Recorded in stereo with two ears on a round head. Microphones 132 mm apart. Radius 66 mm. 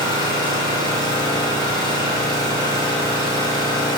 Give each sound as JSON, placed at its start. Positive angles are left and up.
{"t": 0.0, "sound": "an engine running", "side_deg": -30, "distance_m": 3.5}